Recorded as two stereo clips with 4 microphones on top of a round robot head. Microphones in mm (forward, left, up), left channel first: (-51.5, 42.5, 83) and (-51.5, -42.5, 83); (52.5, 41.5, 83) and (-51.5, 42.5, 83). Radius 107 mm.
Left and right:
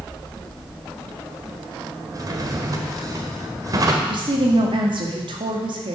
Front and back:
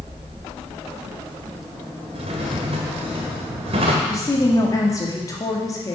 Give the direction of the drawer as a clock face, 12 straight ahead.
5 o'clock.